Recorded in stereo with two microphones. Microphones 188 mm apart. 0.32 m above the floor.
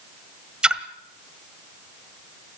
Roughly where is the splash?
Centre.